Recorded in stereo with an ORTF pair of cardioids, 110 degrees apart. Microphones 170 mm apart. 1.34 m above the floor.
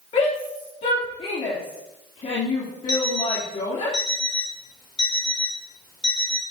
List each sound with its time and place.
0.1 s a shout: 45° left, 3.5 m
2.9 s an alarm clock: 30° left, 2.5 m